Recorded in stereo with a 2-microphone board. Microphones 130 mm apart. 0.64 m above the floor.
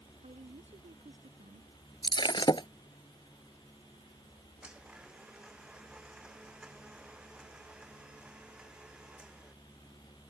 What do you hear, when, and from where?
0.2 s a woman speaking: 65° right (ahead or behind)
2.0 s breaking glass: 40° left (ahead or behind)
4.6 s a blender: 5° right (ahead or behind)